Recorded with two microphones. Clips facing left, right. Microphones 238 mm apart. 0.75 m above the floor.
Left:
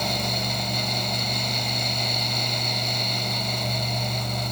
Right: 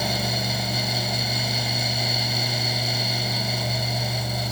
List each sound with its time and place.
Only background noise.